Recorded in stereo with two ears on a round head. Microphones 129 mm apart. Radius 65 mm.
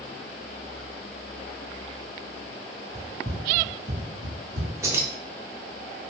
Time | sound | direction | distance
3.0 | running footsteps | 5° right (ahead or behind) | 0.5 m
4.8 | keys jangling | 20° right (ahead or behind) | 0.6 m